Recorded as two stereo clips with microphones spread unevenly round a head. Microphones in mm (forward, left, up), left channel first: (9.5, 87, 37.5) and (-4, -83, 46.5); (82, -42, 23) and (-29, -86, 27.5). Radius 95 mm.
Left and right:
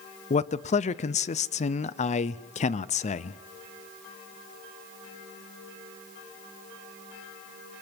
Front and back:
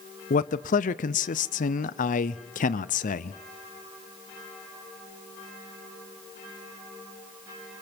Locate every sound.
0.3 s a man speaking: 35° left, 0.5 m